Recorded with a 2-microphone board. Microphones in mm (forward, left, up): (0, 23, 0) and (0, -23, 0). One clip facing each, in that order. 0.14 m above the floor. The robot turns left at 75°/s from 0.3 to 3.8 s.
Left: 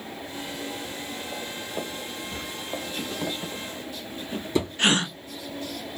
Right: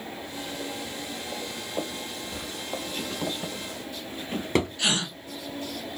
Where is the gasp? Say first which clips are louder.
Left 5 dB; 45° left (ahead or behind), 0.5 m.